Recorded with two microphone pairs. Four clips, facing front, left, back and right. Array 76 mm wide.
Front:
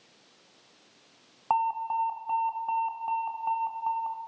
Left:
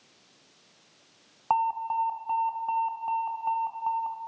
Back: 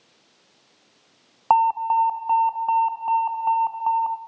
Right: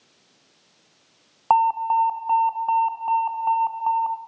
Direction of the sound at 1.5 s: 140° right.